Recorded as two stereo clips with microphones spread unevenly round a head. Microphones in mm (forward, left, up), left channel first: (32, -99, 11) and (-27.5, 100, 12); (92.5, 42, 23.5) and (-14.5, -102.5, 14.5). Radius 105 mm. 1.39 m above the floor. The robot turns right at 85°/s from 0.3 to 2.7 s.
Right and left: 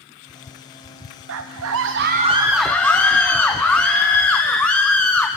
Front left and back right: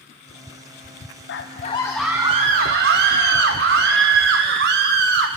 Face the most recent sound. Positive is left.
turn(degrees=-155)